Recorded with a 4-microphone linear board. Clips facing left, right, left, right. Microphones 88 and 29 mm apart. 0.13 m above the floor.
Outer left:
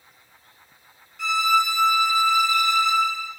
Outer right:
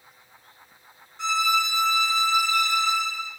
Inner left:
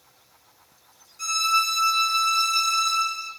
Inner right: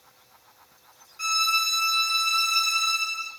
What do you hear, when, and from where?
1.2 s a violin: 30° right (ahead or behind), 1.4 m